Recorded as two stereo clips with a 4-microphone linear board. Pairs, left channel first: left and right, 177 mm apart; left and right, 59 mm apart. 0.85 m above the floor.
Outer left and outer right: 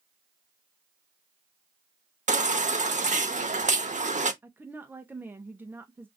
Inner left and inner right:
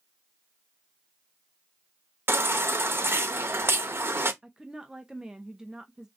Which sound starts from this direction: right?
A baby crying, at 2.3 s.